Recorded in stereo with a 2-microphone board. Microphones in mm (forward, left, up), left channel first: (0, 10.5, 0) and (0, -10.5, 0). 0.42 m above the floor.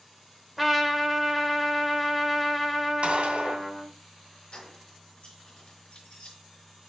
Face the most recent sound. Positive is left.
turn(degrees=55)  # may be behind; listen again after turning